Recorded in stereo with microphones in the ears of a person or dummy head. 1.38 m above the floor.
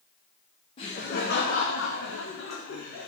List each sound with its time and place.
0.8 s laughter: 25° left (ahead or behind), 0.6 m; by 3.1 s 70° left (ahead or behind), 1.3 m